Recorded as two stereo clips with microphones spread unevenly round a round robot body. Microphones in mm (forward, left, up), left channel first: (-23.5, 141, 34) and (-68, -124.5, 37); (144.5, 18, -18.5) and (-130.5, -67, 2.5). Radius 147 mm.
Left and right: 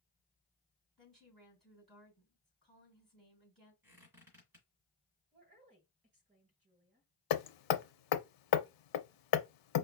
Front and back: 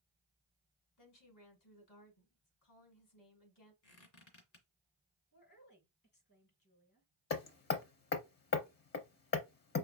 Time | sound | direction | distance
1.0 | a woman speaking | 10° right | 3.5 m
3.8 | a squeak | 15° right | 2 m
5.3 | a woman speaking | 35° right | 4 m
7.3 | hammering | 75° left | 0.6 m